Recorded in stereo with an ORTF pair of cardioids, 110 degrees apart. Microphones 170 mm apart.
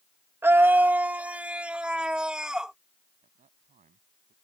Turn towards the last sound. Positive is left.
turn(degrees=-45)